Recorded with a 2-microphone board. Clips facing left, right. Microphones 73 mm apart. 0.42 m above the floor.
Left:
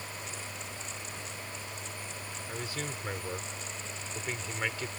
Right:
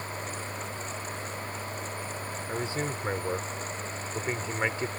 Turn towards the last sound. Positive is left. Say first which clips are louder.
# right 7 dB
turn(degrees=-30)  # may be behind; listen again after turning